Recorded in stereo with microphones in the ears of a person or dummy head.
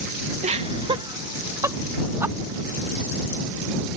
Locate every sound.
0.4 s laughter: 30° right (ahead or behind); by 2.4 s 15° right (ahead or behind)